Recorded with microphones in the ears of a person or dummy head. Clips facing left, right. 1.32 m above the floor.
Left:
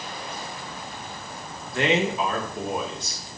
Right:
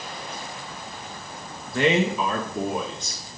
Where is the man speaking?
75° right (ahead or behind), 1.3 m.